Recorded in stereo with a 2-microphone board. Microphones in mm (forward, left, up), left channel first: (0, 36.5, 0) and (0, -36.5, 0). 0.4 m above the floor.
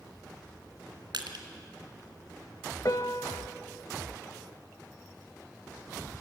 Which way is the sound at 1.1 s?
80° right.